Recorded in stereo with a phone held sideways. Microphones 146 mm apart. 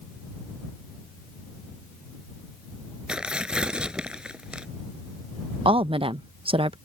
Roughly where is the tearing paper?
Centre.